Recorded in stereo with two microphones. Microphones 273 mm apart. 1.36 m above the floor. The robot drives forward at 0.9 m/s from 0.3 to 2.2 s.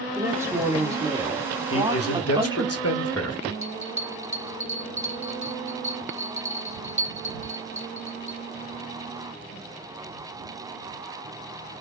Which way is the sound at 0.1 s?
10° right (ahead or behind).